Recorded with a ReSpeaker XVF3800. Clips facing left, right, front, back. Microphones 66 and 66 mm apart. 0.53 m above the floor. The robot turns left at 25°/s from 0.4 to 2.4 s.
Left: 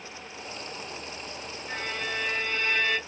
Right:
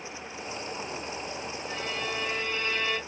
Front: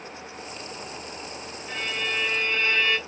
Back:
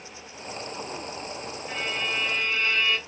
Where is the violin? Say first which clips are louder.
Left 2 dB, front 1 dB; 100° left, 1.6 m; by 3.0 s 80° left, 1.6 m.